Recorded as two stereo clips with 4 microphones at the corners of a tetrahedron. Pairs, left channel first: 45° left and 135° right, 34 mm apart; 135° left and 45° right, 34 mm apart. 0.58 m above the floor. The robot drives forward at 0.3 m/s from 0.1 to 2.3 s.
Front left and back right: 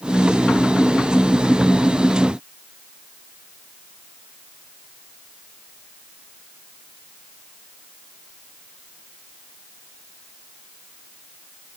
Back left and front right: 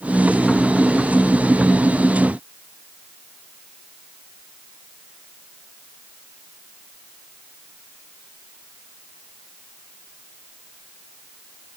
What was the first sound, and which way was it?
Only background noise.